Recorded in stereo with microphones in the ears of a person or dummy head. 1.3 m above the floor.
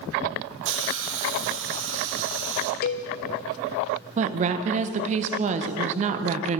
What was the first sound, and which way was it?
A hiss, 70° right (ahead or behind).